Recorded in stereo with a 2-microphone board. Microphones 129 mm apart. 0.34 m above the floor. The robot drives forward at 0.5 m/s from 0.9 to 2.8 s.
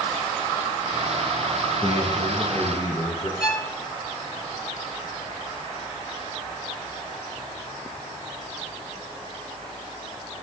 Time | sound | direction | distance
1.8 | a man speaking | 45° left (ahead or behind) | 5 m
3.4 | a violin | 30° left (ahead or behind) | 2.5 m